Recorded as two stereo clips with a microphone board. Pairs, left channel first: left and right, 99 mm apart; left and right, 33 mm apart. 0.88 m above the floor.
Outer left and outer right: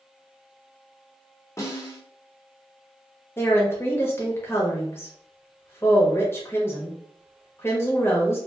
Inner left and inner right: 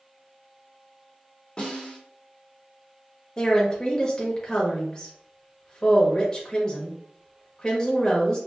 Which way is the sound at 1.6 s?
30° left (ahead or behind).